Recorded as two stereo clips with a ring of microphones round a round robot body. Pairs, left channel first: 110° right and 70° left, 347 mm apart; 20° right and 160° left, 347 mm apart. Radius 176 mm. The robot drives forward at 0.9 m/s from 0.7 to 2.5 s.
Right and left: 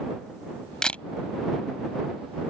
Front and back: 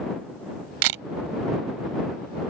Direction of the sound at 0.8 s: 160° left.